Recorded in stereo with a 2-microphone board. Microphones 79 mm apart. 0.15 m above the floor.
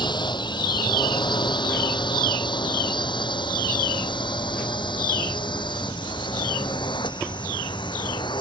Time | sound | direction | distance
0.0 | a drone | 70° left (ahead or behind) | ?